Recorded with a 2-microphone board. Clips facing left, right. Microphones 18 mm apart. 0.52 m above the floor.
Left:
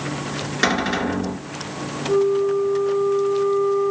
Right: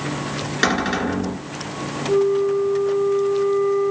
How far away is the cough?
No cough in this recording.